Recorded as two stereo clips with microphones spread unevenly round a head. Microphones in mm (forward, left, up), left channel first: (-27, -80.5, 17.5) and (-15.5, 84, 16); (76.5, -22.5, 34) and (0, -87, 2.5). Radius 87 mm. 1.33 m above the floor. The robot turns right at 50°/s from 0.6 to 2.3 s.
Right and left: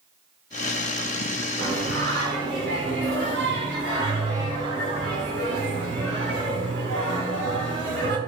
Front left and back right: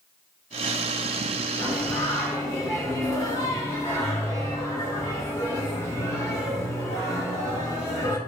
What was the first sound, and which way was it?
Singing, 70° left.